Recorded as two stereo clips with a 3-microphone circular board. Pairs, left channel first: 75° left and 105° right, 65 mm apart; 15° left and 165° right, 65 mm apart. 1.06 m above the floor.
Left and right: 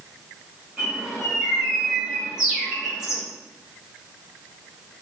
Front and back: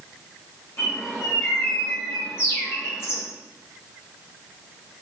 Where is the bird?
25° right, 1.8 m.